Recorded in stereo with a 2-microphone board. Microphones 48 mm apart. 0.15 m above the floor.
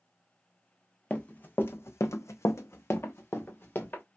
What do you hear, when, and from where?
1.1 s running footsteps: 25° left (ahead or behind), 0.7 m; by 4.0 s 40° left (ahead or behind), 1.3 m